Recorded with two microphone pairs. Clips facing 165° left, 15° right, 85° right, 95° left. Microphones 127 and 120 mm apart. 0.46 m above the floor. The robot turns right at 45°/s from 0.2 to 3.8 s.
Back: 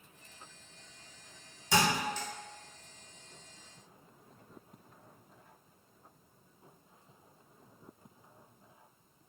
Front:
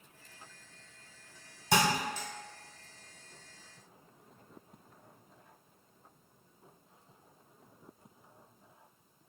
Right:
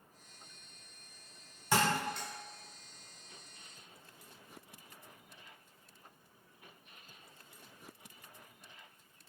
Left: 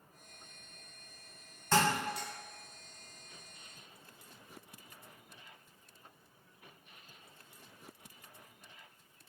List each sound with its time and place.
1.7 s a thud: 10° right, 1.1 m; by 2.3 s 15° left, 1.1 m